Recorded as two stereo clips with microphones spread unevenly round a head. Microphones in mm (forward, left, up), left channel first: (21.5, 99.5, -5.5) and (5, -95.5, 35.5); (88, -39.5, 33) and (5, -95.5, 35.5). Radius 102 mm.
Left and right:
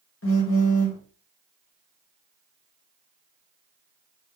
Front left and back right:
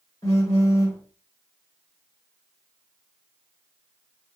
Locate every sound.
0.2 s a phone buzzing: 105° left, 3 m